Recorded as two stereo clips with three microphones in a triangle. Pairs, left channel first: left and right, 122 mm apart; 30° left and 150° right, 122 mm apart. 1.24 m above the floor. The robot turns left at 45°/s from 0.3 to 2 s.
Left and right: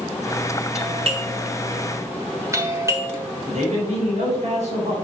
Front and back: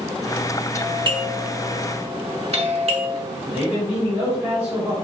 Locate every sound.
0.8 s a doorbell: 95° right, 1.5 m; by 3.2 s 150° right, 1.5 m
3.5 s a man speaking: 75° right, 4.5 m